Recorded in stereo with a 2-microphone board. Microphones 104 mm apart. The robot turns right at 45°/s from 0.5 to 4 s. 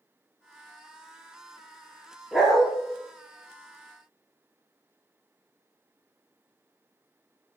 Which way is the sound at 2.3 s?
10° right (ahead or behind).